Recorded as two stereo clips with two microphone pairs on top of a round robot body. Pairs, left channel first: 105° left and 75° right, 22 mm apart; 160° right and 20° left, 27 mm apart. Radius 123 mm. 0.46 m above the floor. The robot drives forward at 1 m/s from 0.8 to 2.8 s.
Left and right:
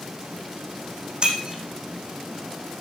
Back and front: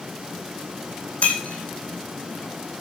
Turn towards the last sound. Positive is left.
turn(degrees=-140)